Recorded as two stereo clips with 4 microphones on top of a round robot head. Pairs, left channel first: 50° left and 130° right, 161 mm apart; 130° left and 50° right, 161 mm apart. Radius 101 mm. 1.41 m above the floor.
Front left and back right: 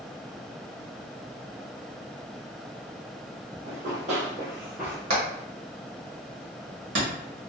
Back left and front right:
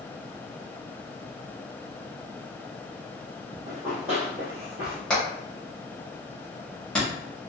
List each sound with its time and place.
3.6 s running footsteps: 140° right, 1.8 m; by 5.0 s 35° right, 1.4 m
5.1 s hammering: 145° right, 1.2 m